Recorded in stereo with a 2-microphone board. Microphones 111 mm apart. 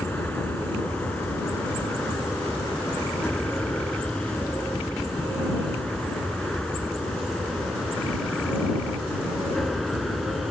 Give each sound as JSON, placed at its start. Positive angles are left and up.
{"t": 0.0, "sound": "an aircraft", "side_deg": 15}